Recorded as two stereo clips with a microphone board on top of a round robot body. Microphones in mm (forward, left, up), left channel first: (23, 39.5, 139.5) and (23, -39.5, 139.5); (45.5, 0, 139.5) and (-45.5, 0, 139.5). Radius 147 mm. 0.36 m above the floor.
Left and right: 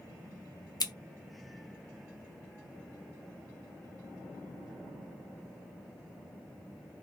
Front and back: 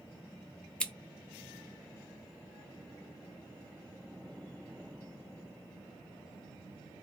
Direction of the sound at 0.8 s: 75° left.